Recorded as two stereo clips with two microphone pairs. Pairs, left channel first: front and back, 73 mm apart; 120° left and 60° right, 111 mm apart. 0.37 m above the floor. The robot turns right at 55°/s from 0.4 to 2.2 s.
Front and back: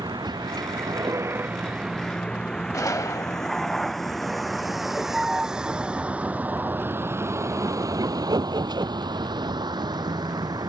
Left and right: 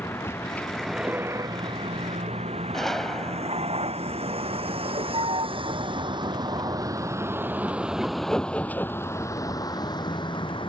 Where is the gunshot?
35° left.